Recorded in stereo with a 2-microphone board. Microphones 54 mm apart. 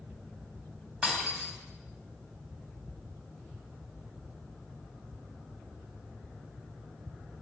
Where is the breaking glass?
20° right (ahead or behind), 2.5 m.